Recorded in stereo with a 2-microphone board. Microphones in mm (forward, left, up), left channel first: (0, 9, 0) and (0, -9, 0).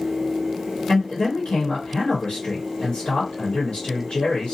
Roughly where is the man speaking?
Left.